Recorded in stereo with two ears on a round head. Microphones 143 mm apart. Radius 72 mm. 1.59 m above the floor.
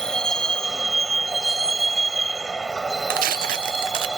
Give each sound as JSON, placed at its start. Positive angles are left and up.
{"t": 0.0, "sound": "a vehicle", "side_deg": 5}
{"t": 3.1, "sound": "tearing paper", "side_deg": -55}